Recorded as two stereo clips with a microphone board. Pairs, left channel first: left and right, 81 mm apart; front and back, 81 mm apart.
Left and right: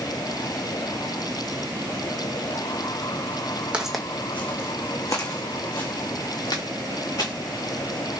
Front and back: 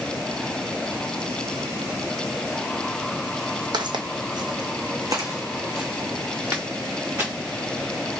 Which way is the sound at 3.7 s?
170° right.